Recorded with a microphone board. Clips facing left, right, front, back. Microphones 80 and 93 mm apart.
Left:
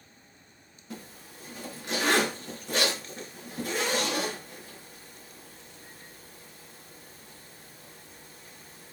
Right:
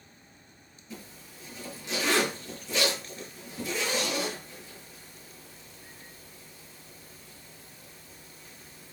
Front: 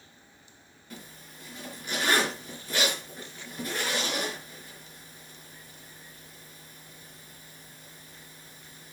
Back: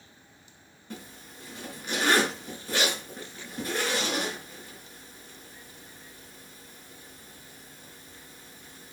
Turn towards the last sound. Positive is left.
turn(degrees=120)